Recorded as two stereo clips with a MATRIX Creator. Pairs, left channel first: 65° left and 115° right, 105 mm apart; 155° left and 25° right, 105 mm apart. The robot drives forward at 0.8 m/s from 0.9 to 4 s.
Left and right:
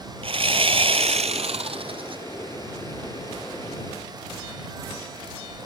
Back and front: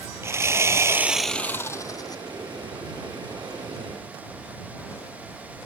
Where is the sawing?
85° right; by 2.2 s 150° right.